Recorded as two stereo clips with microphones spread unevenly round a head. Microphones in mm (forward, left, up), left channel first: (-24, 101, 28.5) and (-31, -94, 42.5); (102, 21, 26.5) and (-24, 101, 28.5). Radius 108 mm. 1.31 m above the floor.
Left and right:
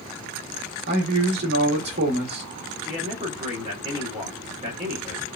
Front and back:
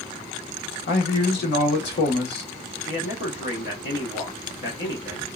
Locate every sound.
0.9 s a man speaking: 45° right, 1.3 m
2.9 s a man speaking: 35° right, 1.2 m